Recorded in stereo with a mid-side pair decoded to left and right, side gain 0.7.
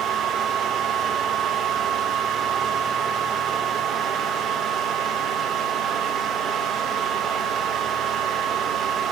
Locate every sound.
0.0 s a fan: 40° right, 2 m